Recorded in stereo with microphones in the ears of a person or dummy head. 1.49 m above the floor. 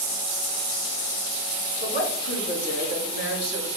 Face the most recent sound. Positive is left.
turn(degrees=55)  # may be behind; listen again after turning